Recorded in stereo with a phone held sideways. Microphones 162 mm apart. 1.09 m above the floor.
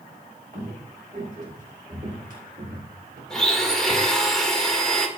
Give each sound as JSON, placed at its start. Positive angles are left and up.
{"t": 0.5, "sound": "footsteps", "side_deg": -55, "distance_m": 6.5}
{"t": 3.3, "sound": "a blender", "side_deg": 5, "distance_m": 1.9}